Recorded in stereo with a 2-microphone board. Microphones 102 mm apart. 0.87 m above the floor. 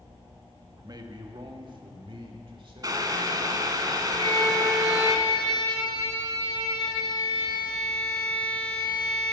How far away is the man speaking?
About 1.0 m.